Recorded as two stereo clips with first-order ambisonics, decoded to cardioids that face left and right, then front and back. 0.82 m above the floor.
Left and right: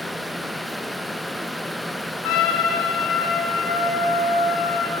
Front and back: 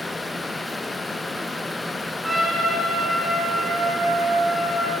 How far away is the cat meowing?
No cat meowing in this recording.